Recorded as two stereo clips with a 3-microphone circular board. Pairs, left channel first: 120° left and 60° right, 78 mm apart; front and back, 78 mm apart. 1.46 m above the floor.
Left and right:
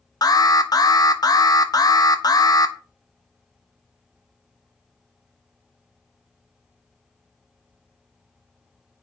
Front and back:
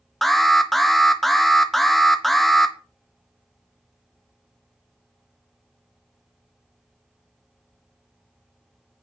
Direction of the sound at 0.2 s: 90° left.